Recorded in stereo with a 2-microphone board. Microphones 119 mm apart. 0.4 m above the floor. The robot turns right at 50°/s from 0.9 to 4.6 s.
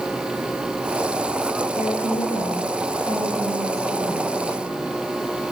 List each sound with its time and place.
1.8 s a woman speaking: 75° left, 9 m; by 4.9 s 145° right, 9 m